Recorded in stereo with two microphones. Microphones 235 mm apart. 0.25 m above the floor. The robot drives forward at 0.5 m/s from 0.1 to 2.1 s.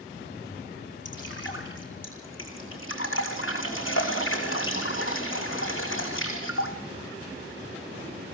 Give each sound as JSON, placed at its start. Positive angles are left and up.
{"t": 1.1, "sound": "dripping", "side_deg": 55, "distance_m": 5.5}